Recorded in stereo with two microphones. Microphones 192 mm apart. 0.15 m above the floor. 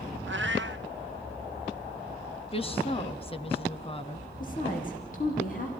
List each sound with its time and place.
0.3 s a cat meowing: 75° right (ahead or behind), 0.8 m
2.5 s a woman speaking: 30° left (ahead or behind), 1.2 m
4.4 s a woman speaking: 45° left (ahead or behind), 6 m